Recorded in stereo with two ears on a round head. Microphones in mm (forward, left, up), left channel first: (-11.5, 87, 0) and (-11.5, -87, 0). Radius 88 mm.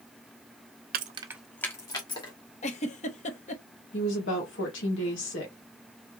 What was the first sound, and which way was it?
Keys jangling, 50° right (ahead or behind).